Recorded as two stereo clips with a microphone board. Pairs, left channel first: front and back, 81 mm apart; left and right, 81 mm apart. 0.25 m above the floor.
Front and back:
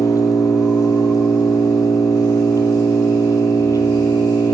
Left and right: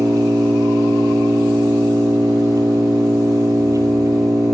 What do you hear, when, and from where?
0.0 s an engine running: 45° right, 2.5 m